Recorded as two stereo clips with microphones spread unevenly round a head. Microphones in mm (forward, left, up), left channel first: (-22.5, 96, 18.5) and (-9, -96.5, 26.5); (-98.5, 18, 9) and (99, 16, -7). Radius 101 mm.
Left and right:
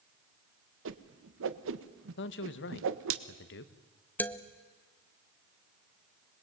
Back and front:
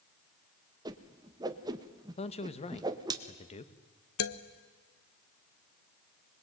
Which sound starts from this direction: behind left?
A man speaking, at 2.2 s.